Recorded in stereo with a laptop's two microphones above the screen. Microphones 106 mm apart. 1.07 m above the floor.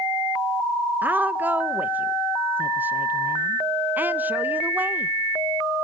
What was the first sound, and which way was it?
A woman speaking, 15° right (ahead or behind).